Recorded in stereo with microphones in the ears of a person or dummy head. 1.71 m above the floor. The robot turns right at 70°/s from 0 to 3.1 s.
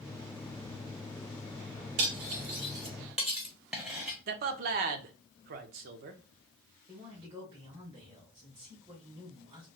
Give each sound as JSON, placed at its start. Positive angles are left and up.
{"t": 2.0, "sound": "cutlery clinking", "side_deg": -30, "distance_m": 0.9}
{"t": 4.3, "sound": "a man speaking", "side_deg": -50, "distance_m": 0.6}
{"t": 6.9, "sound": "a man speaking", "side_deg": -30, "distance_m": 1.4}